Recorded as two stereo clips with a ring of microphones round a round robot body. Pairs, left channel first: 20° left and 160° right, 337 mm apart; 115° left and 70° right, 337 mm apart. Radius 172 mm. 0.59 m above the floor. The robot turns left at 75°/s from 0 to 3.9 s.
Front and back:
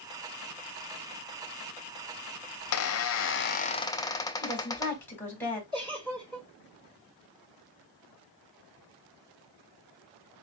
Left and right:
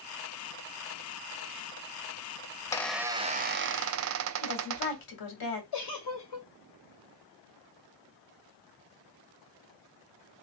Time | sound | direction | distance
2.6 | a squeak | 45° left | 0.6 m
4.4 | a woman speaking | 105° left | 2 m
5.7 | a giggle | 125° left | 3 m